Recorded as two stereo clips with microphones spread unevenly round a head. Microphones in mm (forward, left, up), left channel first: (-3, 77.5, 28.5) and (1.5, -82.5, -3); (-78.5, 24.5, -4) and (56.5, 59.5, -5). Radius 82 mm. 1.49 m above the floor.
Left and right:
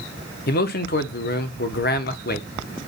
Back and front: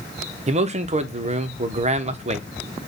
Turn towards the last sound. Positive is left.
turn(degrees=55)